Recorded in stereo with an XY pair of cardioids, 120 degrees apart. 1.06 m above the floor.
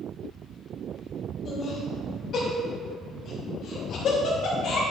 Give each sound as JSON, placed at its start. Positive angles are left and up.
{"t": 1.4, "sound": "laughter", "azimuth_deg": 45, "distance_m": 2.5}